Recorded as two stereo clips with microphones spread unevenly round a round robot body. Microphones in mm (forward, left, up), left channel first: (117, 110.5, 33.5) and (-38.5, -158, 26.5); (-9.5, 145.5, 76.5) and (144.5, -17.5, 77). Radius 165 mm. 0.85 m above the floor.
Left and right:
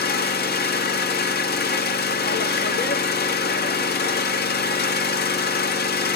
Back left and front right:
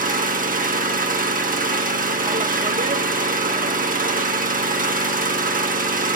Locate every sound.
0.0 s an engine running: 5° left, 1.6 m